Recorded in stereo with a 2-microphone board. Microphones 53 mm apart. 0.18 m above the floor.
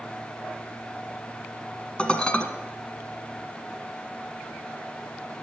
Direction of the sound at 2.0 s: 20° left (ahead or behind).